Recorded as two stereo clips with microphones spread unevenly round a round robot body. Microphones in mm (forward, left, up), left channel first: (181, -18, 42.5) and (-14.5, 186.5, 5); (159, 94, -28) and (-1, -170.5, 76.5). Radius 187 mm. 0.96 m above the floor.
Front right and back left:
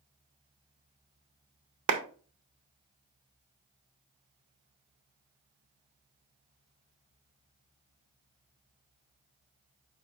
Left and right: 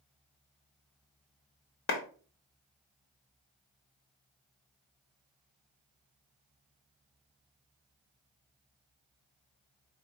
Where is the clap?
115° left, 0.8 m.